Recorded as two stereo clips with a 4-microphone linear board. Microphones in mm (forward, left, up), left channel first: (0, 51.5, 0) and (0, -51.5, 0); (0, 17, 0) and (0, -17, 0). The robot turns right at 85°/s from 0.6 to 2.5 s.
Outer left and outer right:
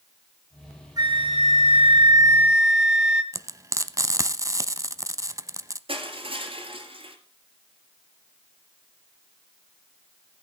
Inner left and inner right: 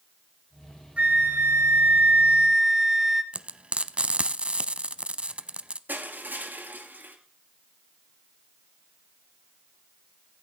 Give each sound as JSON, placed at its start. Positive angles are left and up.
{"t": 1.0, "sound": "a flute", "azimuth_deg": -140, "distance_m": 1.5}
{"t": 3.3, "sound": "frying", "side_deg": -30, "distance_m": 0.7}
{"t": 5.9, "sound": "crushing", "side_deg": -65, "distance_m": 3.0}